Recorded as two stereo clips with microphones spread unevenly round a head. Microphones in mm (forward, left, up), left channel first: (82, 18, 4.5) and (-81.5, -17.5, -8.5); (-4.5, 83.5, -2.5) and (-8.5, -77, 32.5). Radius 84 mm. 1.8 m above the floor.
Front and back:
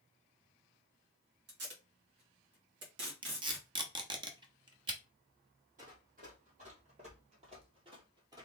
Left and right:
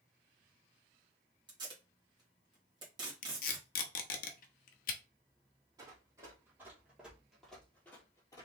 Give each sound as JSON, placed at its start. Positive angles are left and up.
{"t": 1.5, "sound": "tape being pulled", "azimuth_deg": -150, "distance_m": 1.9}
{"t": 3.2, "sound": "tape being pulled", "azimuth_deg": 125, "distance_m": 0.8}
{"t": 5.8, "sound": "running footsteps", "azimuth_deg": -140, "distance_m": 2.5}